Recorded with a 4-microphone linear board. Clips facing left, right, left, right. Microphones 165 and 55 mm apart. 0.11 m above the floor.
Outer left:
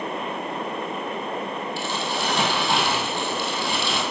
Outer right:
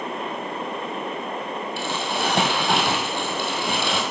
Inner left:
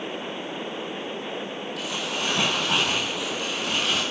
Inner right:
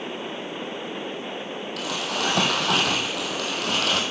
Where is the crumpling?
65° right (ahead or behind), 2 m.